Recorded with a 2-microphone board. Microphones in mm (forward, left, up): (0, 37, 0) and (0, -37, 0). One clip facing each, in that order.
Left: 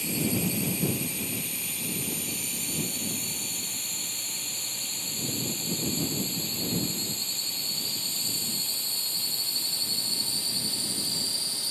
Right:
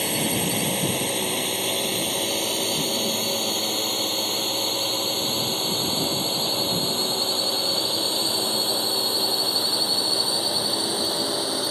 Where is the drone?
70° right (ahead or behind); by 11.7 s 60° right (ahead or behind).